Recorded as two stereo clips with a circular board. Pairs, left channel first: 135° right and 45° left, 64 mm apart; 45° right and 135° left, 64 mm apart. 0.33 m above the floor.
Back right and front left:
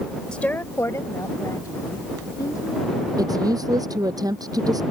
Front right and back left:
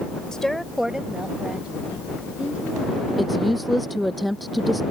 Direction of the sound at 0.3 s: 95° right.